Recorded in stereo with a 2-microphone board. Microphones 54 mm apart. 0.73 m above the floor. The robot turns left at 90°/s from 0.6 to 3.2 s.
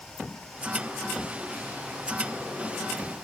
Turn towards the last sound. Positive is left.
No sound to turn to.